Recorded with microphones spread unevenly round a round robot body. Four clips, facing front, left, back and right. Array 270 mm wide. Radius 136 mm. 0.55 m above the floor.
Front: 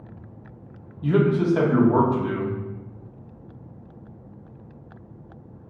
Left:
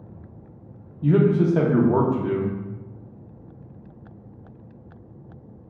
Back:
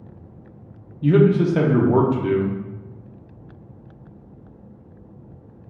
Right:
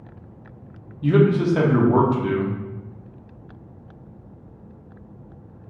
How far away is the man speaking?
About 0.6 m.